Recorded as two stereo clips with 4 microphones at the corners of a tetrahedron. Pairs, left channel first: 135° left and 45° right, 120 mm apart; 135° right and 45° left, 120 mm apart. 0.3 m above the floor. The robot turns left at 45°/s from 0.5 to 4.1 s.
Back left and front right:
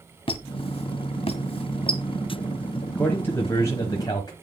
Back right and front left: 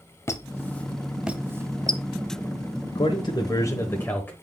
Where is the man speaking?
150° right, 1.1 m; by 4.3 s 160° left, 1.1 m.